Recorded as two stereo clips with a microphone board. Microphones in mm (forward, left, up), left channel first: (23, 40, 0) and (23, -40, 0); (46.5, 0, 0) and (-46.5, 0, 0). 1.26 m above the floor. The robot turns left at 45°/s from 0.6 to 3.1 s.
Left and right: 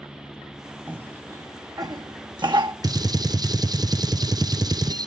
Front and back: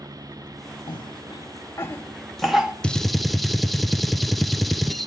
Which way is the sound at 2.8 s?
75° right.